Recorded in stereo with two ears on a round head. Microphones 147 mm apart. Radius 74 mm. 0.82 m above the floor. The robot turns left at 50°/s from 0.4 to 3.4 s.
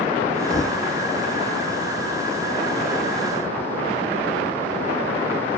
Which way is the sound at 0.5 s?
25° left (ahead or behind).